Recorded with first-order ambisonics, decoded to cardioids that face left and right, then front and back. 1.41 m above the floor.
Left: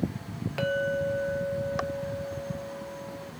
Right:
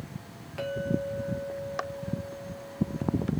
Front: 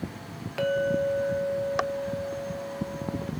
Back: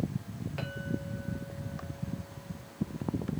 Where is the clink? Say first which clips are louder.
Left 4 dB, front 16 dB; 45° left, 0.6 m.